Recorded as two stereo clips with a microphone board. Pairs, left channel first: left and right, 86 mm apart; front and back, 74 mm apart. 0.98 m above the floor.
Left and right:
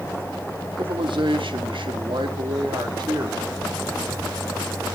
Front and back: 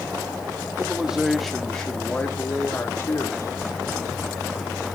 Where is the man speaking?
105° right, 2.5 m; by 4.8 s 35° right, 4.5 m.